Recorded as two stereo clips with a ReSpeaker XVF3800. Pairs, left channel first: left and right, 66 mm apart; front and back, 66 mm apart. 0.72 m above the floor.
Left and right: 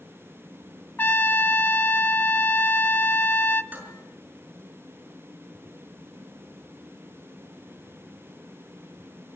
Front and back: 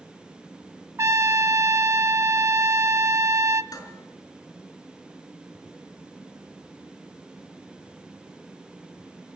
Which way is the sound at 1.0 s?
145° left.